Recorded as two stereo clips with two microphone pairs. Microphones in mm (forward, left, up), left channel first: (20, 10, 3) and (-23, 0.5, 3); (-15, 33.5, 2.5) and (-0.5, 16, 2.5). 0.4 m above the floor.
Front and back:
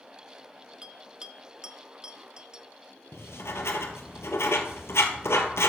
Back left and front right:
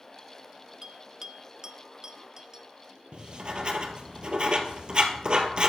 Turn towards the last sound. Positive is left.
turn(degrees=0)